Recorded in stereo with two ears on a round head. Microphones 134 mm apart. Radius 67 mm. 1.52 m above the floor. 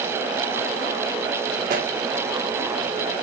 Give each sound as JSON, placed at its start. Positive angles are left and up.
{"t": 1.7, "sound": "a pop", "side_deg": -65, "distance_m": 2.0}